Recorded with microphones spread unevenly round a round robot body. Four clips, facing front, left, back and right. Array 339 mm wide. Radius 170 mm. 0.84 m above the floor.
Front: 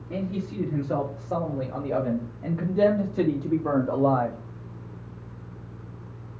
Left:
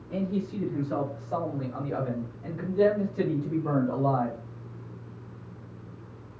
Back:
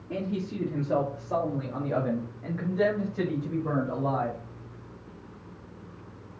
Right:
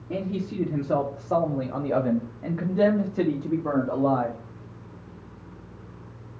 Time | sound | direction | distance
0.1 | a man speaking | 100° right | 3 m